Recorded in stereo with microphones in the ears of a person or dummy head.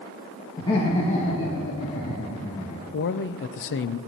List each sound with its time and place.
0.6 s laughter: 25° left (ahead or behind), 1.7 m; by 2.8 s 45° left (ahead or behind), 3 m
2.9 s a man speaking: 60° left (ahead or behind), 0.7 m